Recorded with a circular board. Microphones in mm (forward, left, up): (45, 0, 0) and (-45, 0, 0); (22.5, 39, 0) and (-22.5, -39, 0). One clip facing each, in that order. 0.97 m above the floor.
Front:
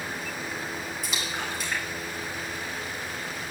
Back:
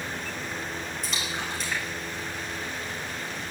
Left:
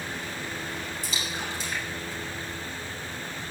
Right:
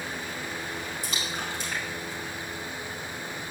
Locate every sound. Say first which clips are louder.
1.0 s a splash: even, even; 85° right, 5 m